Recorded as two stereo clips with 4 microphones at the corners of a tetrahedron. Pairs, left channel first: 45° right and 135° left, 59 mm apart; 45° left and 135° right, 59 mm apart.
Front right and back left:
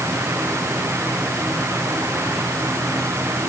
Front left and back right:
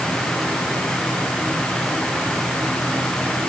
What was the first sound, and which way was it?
Only background noise.